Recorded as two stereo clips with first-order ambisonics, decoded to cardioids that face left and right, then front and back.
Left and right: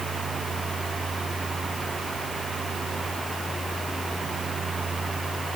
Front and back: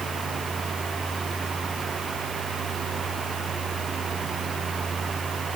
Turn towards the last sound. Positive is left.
No sound to turn to.